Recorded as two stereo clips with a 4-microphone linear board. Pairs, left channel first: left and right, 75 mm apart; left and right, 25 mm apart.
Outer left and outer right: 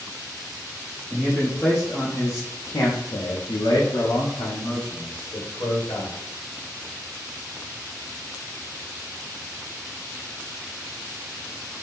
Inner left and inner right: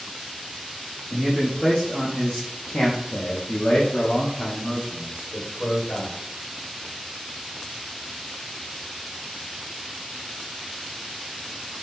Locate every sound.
1.1 s a man speaking: 5° left (ahead or behind), 1.2 m; by 6.1 s 65° left (ahead or behind), 1.9 m